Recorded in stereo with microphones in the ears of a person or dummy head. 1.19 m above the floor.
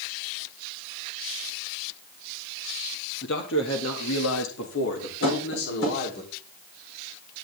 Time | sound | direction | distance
3.2 | a man speaking | 65° left (ahead or behind) | 2 m
5.2 | tapping | 65° left (ahead or behind) | 4.5 m